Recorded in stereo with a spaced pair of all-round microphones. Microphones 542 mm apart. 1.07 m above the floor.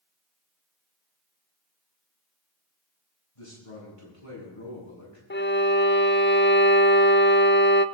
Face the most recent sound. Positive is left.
turn(degrees=20)  # may be behind; listen again after turning